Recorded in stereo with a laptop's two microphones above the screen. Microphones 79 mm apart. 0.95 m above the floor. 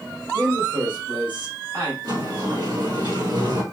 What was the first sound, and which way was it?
A man speaking, 60° right (ahead or behind).